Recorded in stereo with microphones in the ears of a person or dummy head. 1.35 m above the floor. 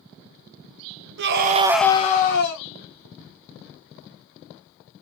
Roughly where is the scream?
Right.